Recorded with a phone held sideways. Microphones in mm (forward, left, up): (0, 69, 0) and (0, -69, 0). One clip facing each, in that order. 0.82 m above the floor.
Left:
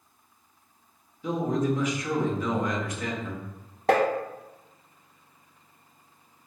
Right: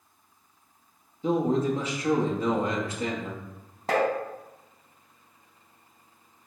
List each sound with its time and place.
1.2 s a man speaking: 30° right (ahead or behind), 0.9 m
3.9 s tapping: 60° left (ahead or behind), 0.7 m